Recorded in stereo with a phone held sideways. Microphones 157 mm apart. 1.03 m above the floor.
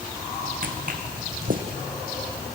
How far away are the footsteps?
About 3 m.